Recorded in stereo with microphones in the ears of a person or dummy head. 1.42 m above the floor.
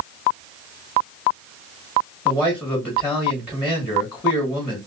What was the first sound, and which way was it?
A man speaking, 10° right (ahead or behind).